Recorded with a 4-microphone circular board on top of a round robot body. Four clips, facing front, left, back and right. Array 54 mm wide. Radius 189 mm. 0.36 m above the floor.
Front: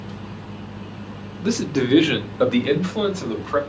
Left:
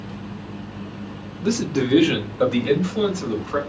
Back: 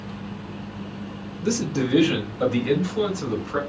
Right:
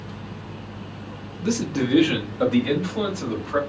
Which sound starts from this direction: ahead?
A man speaking, at 1.4 s.